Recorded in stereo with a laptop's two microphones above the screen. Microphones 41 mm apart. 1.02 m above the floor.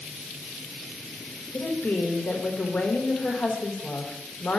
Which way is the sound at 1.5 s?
35° left (ahead or behind).